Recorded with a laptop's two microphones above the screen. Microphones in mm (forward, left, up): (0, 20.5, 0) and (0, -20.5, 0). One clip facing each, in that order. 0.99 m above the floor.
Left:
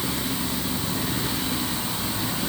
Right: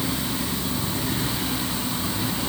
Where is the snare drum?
No snare drum in this recording.